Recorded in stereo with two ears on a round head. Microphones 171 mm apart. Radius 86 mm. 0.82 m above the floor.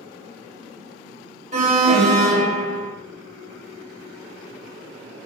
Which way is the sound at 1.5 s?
40° right (ahead or behind).